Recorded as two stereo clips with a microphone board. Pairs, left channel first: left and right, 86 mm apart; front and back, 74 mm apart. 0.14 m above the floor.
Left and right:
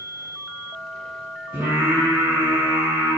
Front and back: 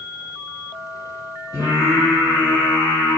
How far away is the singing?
About 1.2 m.